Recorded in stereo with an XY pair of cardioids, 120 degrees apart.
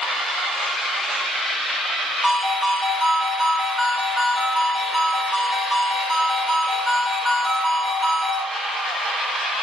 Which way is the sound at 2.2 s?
5° left.